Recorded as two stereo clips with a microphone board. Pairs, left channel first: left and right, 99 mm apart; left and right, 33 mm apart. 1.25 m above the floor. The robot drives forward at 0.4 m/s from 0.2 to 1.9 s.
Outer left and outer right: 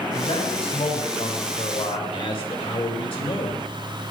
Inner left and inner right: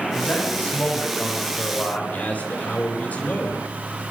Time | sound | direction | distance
0.1 | a man speaking | 75° left (ahead or behind) | 6 m
2.1 | a man speaking | 65° left (ahead or behind) | 5 m